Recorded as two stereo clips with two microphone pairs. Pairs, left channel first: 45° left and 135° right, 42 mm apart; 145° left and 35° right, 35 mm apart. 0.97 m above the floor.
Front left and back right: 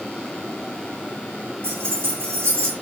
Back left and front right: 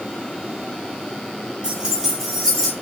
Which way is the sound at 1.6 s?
100° right.